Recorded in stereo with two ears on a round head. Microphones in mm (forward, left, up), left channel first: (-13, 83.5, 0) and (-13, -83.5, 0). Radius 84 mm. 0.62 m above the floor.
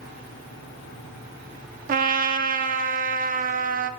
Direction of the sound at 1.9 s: 45° right (ahead or behind).